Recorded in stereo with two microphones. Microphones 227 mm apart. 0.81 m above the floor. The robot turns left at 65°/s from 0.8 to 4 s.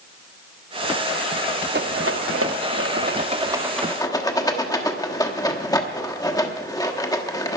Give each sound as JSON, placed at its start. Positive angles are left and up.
{"t": 1.7, "sound": "a rattle", "side_deg": -50, "distance_m": 1.1}